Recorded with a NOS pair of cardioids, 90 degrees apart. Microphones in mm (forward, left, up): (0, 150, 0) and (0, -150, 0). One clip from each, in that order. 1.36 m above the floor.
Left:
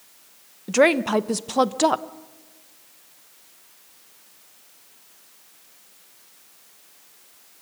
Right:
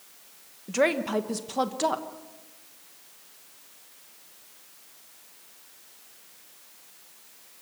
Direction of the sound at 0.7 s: 40° left.